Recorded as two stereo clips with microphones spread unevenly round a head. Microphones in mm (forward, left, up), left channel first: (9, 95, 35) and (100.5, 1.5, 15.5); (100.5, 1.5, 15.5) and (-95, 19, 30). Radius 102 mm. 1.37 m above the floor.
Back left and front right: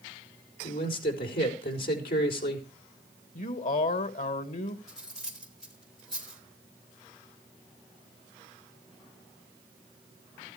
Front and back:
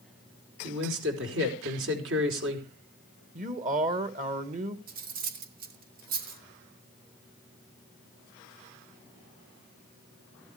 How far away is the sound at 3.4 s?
About 2.0 m.